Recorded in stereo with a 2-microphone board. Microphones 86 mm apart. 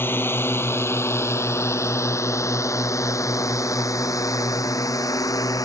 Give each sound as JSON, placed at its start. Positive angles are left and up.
{"t": 0.0, "sound": "a drone", "side_deg": 25}